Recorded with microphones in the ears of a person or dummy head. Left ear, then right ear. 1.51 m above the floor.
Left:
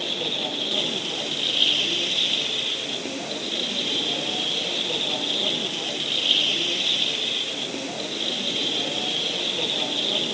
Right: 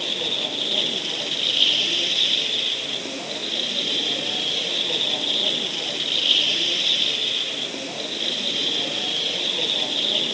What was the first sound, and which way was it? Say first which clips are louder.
A machine running: right 2 dB; 15° right (ahead or behind).